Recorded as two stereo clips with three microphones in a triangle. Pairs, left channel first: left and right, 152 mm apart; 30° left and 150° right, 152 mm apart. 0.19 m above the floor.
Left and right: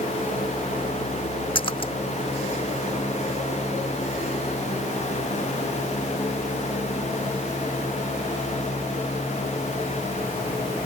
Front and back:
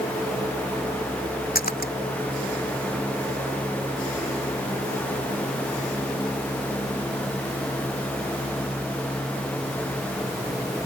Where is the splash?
35° left.